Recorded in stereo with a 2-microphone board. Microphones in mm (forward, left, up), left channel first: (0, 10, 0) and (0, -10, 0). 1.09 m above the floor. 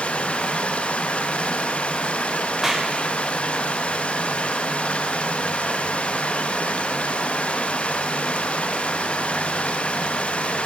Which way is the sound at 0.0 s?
85° left.